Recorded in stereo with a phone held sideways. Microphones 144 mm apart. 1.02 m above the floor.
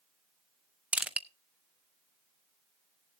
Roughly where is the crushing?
Centre.